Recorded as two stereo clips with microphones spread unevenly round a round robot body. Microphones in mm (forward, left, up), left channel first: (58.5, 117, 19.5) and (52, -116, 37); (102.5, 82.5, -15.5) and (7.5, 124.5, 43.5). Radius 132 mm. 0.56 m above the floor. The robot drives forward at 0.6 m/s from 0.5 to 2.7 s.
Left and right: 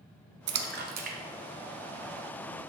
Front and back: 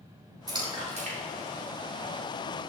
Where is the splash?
120° right, 0.6 m; by 2.3 s 165° right, 1.4 m.